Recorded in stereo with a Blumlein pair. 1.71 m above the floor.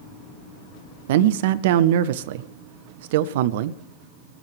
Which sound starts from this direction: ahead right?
A man speaking, at 1.1 s.